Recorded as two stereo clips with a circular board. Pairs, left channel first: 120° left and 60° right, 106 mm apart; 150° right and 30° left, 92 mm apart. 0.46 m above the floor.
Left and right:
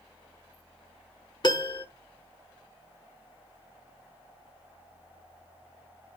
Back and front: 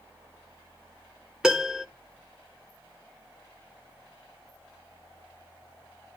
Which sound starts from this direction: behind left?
A piano, at 1.4 s.